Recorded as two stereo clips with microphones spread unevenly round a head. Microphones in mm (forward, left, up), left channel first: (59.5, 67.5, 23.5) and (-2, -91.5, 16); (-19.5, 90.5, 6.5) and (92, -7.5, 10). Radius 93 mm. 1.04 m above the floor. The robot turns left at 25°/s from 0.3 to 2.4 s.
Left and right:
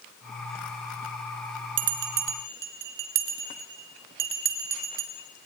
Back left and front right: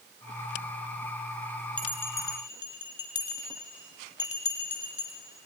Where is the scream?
I don't hear a scream.